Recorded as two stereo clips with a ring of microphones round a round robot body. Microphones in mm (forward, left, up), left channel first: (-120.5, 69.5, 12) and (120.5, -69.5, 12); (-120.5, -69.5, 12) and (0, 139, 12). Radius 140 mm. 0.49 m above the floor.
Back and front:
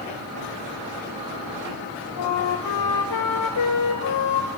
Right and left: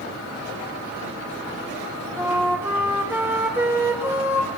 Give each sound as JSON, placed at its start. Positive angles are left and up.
{"t": 2.2, "sound": "a flute", "azimuth_deg": 140, "distance_m": 2.5}